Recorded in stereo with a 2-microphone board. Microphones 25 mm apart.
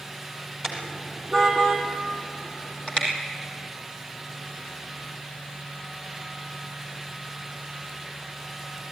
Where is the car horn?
15° left (ahead or behind), 3 m; by 3.1 s 45° left (ahead or behind), 4 m.